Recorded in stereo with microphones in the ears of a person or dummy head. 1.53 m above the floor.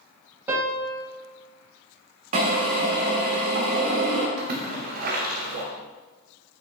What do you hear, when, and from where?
0.5 s a piano: 5° right (ahead or behind), 0.9 m
2.3 s a drill: 35° right (ahead or behind), 1.7 m
4.4 s a splash: 40° right (ahead or behind), 0.9 m